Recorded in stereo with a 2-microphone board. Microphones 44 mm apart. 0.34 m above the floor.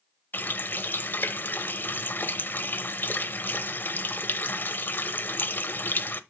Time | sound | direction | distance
0.3 | a running tap | 50° left (ahead or behind) | 0.8 m